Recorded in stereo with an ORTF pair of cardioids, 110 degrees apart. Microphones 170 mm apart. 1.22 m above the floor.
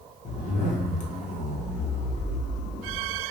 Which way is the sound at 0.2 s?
45° left.